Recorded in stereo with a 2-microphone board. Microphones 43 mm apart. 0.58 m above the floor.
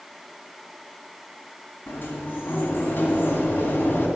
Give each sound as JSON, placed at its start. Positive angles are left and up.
{"t": 1.9, "sound": "a sliding door", "side_deg": 55, "distance_m": 2.0}